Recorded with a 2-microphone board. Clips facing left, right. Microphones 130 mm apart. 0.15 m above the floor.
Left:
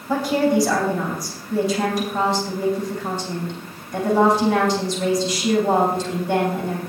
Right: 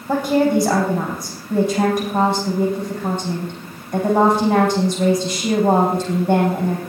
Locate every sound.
0.1 s a woman speaking: 55° right (ahead or behind), 6.5 m